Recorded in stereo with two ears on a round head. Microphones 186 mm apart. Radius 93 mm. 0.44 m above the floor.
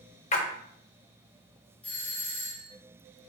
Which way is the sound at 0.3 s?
35° left (ahead or behind).